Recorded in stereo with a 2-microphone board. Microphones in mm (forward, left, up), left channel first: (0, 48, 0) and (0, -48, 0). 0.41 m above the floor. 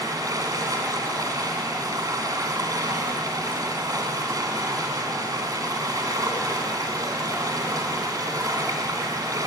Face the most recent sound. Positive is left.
turn(degrees=-40)  # may be behind; listen again after turning